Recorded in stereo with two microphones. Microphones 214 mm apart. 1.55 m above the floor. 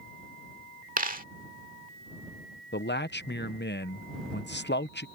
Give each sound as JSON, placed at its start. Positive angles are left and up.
{"t": 1.0, "sound": "a dropped coin", "side_deg": -40}
{"t": 2.7, "sound": "a man speaking", "side_deg": 55}